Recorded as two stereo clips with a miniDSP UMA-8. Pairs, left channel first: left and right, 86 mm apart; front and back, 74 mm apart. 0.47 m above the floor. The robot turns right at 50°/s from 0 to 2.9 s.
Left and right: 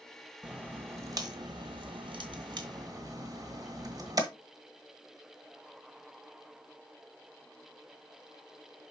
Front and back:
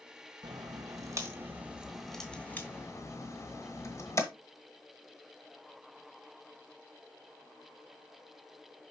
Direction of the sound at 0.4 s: 170° right.